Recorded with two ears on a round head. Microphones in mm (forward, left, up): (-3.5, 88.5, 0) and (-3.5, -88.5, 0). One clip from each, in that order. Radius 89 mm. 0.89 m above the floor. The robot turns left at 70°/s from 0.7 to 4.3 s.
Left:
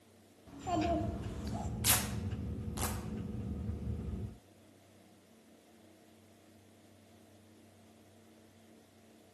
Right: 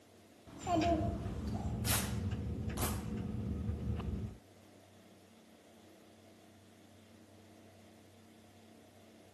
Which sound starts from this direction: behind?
A child speaking, at 0.5 s.